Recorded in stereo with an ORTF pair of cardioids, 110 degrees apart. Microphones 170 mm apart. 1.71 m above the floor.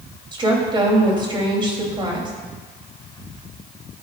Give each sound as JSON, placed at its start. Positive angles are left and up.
{"t": 0.3, "sound": "a woman speaking", "azimuth_deg": -30, "distance_m": 3.5}